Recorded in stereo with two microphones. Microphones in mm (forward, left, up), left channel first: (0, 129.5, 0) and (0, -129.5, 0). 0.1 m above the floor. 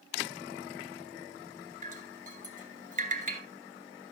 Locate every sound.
1.8 s dripping: 30° right (ahead or behind), 1.9 m